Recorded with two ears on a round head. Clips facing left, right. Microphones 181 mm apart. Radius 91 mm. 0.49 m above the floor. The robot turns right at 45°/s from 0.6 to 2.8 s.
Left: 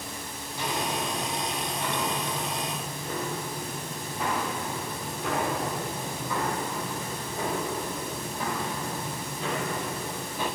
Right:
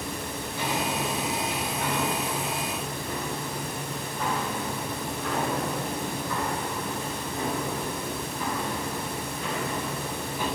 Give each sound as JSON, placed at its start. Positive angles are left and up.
{"t": 0.5, "sound": "footsteps", "side_deg": -65, "distance_m": 5.5}